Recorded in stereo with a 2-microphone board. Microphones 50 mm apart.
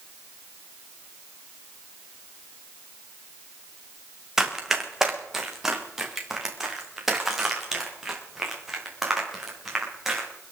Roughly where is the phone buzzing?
I don't hear a phone buzzing.